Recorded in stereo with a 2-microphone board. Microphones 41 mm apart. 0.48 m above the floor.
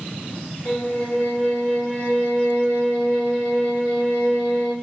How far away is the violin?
About 1.5 m.